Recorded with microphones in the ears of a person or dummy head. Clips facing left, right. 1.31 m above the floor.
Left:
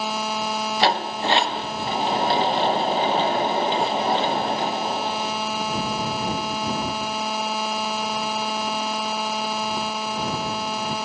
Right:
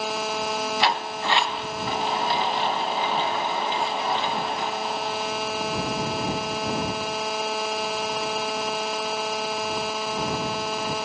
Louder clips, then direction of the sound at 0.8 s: Left 7 dB; 30° left (ahead or behind).